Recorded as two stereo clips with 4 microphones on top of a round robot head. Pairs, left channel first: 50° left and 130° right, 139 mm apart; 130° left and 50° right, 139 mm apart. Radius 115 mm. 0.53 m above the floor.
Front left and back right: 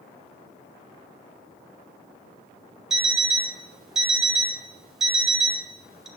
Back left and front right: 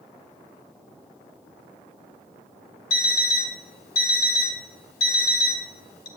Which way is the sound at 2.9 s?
140° left.